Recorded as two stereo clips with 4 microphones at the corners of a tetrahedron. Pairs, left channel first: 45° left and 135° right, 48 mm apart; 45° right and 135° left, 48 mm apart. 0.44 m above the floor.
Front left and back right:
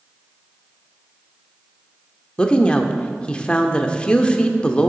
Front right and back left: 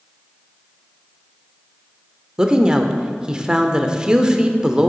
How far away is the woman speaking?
About 0.9 m.